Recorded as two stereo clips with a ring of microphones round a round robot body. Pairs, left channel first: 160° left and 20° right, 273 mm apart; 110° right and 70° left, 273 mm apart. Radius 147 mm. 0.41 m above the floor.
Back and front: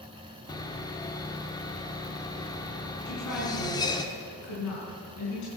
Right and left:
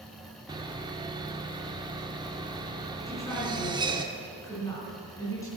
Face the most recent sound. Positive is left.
turn(degrees=170)